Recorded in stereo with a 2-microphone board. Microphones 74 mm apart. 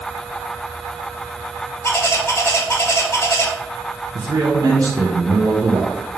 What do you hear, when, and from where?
1.8 s a bird: 35° left (ahead or behind), 0.7 m
4.2 s a man speaking: 50° right (ahead or behind), 0.7 m